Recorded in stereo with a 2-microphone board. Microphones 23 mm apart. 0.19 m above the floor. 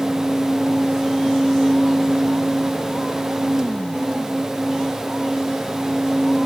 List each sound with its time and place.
Only background noise.